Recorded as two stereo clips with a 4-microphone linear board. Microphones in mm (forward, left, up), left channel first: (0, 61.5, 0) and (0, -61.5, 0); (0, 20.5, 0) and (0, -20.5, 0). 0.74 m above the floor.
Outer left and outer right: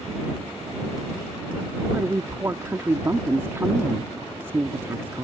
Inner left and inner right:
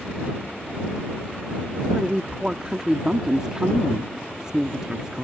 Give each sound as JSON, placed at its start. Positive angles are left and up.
{"t": 1.9, "sound": "a woman speaking", "side_deg": -20}